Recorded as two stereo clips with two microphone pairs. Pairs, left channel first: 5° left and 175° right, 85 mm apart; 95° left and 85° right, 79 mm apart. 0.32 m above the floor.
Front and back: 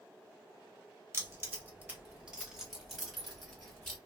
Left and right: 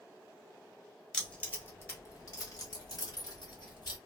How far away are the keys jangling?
About 1.0 m.